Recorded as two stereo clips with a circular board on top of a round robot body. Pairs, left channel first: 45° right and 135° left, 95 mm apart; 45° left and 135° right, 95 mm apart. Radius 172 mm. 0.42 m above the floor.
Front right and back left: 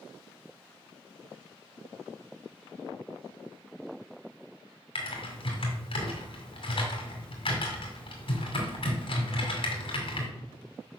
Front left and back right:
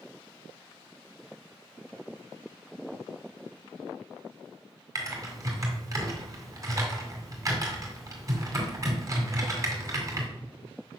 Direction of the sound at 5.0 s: 80° right.